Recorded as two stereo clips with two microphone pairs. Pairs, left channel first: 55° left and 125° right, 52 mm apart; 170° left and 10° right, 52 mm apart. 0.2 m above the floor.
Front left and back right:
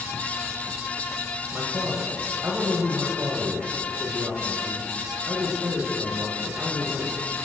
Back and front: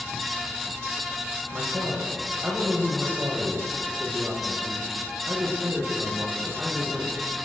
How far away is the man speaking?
About 8.5 m.